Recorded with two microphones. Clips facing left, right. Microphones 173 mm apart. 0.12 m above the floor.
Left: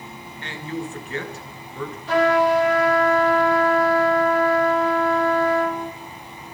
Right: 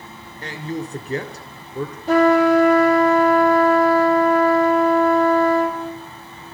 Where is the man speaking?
40° right (ahead or behind), 1.4 m.